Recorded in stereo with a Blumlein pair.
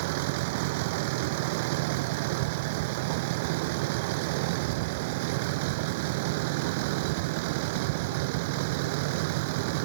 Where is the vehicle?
50° right.